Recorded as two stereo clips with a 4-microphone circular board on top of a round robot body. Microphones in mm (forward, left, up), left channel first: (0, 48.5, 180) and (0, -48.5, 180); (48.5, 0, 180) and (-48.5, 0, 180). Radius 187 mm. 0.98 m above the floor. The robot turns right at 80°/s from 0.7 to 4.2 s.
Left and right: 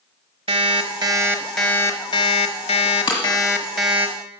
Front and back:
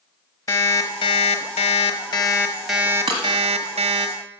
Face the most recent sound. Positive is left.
turn(degrees=-140)